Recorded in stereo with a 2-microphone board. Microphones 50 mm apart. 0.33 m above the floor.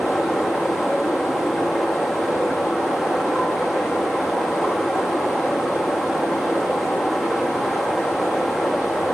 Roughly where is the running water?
Centre.